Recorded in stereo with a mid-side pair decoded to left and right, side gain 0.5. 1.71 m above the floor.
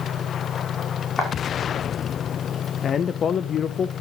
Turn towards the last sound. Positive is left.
turn(degrees=50)